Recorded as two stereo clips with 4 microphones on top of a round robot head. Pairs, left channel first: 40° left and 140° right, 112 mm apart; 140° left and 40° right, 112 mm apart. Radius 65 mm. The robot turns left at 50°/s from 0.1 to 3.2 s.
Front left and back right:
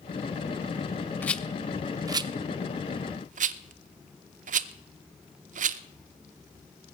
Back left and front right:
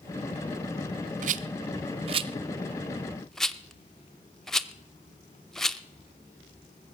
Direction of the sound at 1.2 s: 35° right.